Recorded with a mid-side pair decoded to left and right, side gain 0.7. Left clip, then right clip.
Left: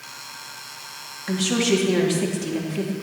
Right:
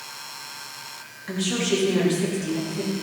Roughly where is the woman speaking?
Ahead left.